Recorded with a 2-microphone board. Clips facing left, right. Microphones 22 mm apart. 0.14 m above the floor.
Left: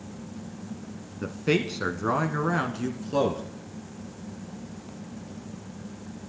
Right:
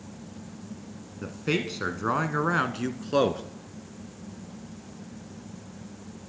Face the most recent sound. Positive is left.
turn(degrees=-35)  # may be behind; listen again after turning